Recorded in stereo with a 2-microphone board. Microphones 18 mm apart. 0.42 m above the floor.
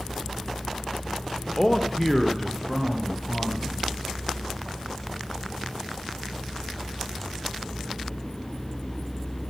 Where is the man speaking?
20° left (ahead or behind), 1.1 m; by 4.0 s 15° right (ahead or behind), 3 m.